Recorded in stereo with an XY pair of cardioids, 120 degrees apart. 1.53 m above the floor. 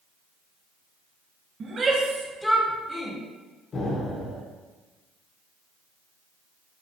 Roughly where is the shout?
Ahead right.